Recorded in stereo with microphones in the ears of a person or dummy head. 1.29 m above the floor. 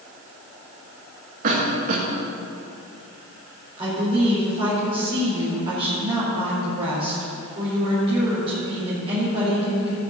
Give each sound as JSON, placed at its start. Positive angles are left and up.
{"t": 1.4, "sound": "a cough", "side_deg": -45, "distance_m": 2.0}
{"t": 3.8, "sound": "a woman speaking", "side_deg": -30, "distance_m": 4.5}